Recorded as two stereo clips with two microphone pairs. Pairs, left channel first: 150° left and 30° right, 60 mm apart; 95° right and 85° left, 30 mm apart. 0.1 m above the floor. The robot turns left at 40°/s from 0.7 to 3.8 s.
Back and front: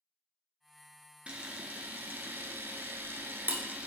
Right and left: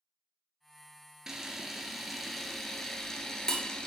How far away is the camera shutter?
About 0.5 m.